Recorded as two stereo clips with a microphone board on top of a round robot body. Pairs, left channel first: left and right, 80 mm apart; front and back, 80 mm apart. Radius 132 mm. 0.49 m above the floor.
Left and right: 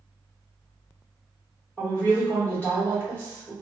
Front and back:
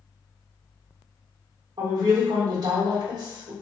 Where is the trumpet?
No trumpet in this recording.